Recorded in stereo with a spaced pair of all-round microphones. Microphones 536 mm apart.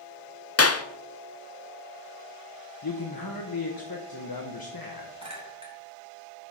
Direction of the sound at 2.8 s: 45° left (ahead or behind).